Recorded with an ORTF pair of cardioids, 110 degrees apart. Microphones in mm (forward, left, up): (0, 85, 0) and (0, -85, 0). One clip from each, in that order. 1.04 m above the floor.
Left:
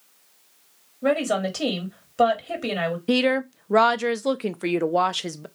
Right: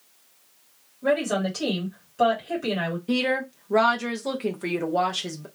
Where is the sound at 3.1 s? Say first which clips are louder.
Left 3 dB; 40° left, 0.5 m.